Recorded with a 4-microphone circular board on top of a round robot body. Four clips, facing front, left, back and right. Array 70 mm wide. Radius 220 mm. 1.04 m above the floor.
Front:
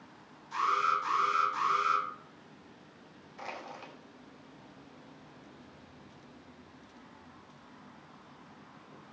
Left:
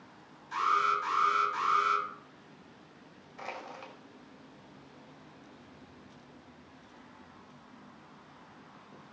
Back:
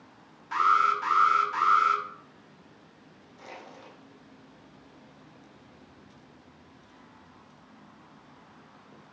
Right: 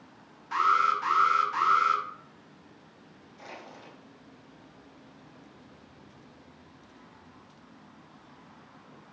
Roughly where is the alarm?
Behind right.